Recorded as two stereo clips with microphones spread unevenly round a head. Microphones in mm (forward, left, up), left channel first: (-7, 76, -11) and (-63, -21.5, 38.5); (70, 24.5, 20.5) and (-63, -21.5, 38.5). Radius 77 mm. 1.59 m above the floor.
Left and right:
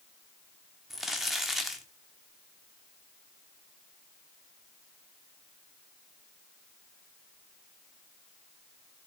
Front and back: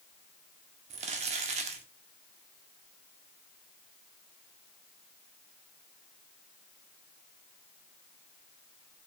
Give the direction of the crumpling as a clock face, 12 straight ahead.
6 o'clock.